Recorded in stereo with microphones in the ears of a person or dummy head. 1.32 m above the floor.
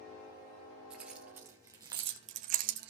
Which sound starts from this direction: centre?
Keys jangling, at 0.9 s.